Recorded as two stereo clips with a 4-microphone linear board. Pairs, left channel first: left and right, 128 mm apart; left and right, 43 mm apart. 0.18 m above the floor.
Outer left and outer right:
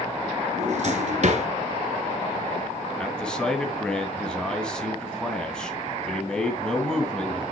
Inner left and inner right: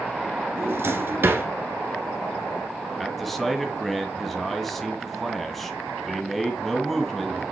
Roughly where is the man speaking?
Centre.